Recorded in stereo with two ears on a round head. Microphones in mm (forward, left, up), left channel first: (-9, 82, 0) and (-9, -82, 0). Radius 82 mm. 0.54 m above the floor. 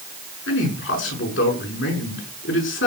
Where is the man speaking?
80° left, 6.5 m.